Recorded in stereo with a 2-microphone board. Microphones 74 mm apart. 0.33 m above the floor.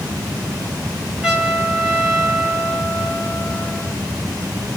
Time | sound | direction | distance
1.2 | a trumpet | 10° right (ahead or behind) | 1.3 m